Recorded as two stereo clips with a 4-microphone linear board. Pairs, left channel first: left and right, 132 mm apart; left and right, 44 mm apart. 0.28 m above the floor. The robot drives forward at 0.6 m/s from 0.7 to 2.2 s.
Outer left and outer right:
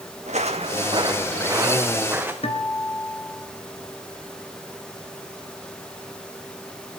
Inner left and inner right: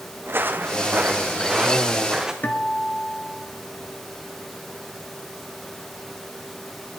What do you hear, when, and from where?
0.2 s footsteps: 60° right (ahead or behind), 1.1 m; by 2.3 s 15° right (ahead or behind), 2.5 m
2.4 s a guitar: 50° left (ahead or behind), 1.6 m